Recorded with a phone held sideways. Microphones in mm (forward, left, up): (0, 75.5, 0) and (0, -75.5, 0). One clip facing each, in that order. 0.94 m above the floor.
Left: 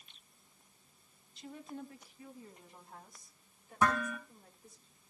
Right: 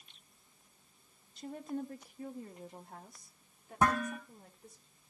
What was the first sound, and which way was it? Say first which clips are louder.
A woman speaking: right 6 dB; 45° right (ahead or behind).